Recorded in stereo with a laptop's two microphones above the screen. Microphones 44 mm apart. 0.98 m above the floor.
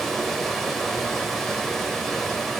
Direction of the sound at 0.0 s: 5° left (ahead or behind).